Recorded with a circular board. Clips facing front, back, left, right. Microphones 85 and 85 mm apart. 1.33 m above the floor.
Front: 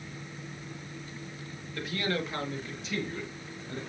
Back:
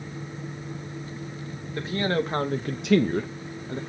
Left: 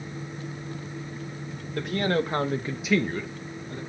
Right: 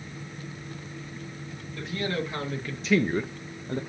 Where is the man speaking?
120° left, 1.7 m; by 3.8 s 110° right, 1.2 m.